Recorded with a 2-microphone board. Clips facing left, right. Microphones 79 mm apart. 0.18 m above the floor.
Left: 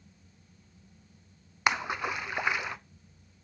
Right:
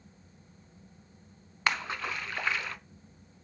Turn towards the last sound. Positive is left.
turn(degrees=15)  # may be behind; listen again after turning